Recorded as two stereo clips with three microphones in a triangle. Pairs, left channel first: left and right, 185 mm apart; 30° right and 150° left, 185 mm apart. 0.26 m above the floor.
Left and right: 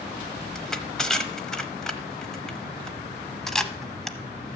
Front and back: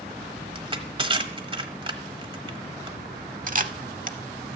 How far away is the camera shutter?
About 0.6 m.